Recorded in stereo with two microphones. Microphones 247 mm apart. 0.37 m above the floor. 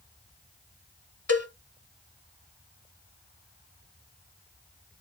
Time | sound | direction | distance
1.3 | a cowbell | 75° left (ahead or behind) | 1.2 m